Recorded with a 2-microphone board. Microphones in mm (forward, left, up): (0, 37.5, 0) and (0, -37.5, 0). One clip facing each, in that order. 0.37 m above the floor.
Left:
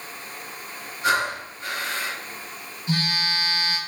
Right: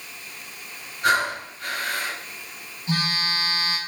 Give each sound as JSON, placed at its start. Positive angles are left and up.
{"t": 1.0, "sound": "breathing", "side_deg": -55, "distance_m": 2.0}
{"t": 2.9, "sound": "a phone buzzing", "side_deg": -25, "distance_m": 1.6}